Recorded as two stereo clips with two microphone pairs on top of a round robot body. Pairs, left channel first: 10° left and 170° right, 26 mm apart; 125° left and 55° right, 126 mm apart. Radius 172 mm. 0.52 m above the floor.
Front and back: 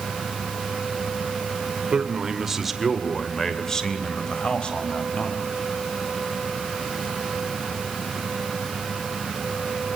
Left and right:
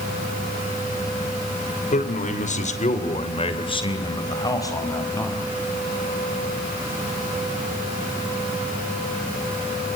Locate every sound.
1.9 s a man speaking: 130° left, 2.5 m; by 5.4 s 50° left, 4.5 m